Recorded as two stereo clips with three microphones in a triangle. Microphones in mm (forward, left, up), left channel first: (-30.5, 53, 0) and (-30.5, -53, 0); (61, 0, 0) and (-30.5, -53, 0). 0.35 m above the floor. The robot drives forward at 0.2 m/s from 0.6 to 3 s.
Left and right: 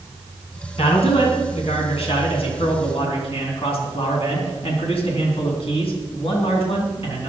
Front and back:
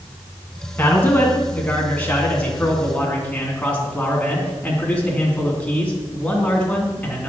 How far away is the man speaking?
About 3.5 m.